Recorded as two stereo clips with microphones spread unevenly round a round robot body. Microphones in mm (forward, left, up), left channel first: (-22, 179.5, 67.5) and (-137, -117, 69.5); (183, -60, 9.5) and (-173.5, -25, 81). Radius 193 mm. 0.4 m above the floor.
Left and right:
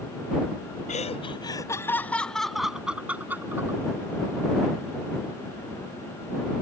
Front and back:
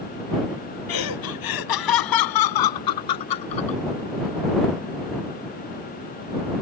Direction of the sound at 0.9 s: Straight ahead.